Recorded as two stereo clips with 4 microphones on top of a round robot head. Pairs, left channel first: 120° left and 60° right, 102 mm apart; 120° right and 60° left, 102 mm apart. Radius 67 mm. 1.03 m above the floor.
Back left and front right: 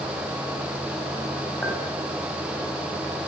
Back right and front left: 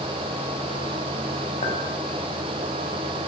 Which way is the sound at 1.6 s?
155° right.